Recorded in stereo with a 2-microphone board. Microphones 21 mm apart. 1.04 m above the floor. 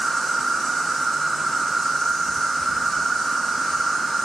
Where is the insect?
10° left (ahead or behind), 1.6 m.